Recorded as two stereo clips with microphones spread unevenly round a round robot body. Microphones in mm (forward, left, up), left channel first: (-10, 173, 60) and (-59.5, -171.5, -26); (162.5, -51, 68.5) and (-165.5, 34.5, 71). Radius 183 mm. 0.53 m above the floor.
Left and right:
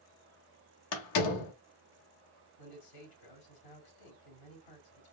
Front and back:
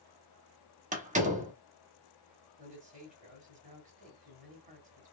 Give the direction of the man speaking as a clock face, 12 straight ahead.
9 o'clock.